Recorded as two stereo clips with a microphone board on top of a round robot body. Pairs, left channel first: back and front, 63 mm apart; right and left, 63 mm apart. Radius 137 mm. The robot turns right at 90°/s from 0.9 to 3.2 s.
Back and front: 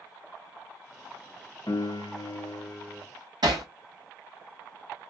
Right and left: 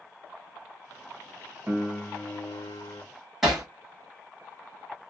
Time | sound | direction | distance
1.7 | a piano | 150° left | 0.9 m
3.4 | hammering | straight ahead | 0.9 m